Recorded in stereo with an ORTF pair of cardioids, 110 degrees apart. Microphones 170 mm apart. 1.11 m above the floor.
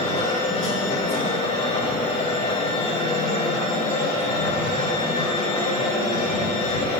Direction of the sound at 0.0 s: 35° left.